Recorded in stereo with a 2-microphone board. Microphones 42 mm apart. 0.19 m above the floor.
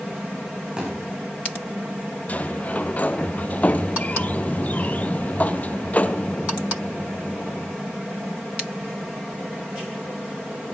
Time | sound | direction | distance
0.8 | a thud | 20° right (ahead or behind) | 8.5 m
2.3 | a sliding door | 35° left (ahead or behind) | 0.9 m